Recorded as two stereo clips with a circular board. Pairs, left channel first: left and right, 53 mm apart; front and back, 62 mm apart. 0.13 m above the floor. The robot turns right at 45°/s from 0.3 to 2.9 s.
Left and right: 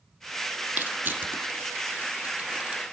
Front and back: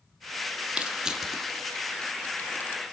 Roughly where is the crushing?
Behind right.